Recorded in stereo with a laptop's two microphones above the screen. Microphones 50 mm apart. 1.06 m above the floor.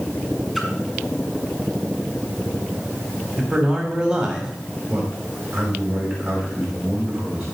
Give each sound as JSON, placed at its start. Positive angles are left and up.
{"t": 0.6, "sound": "a splash", "side_deg": -5, "distance_m": 1.9}
{"t": 3.4, "sound": "a man speaking", "side_deg": -25, "distance_m": 3.5}
{"t": 4.9, "sound": "a man speaking", "side_deg": -40, "distance_m": 5.5}